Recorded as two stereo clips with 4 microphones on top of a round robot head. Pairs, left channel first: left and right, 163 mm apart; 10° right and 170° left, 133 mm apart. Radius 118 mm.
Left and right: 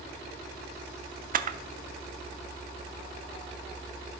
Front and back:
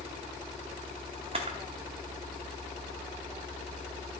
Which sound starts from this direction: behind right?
A camera shutter, at 1.3 s.